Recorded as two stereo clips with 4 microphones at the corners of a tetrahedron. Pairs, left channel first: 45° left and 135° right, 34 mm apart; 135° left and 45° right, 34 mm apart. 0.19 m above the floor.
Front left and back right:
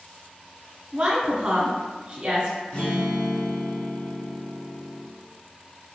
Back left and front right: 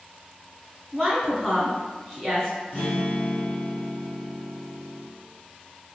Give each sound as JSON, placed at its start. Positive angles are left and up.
{"t": 0.9, "sound": "a woman speaking", "azimuth_deg": -150, "distance_m": 1.5}
{"t": 2.7, "sound": "a guitar", "azimuth_deg": 95, "distance_m": 1.3}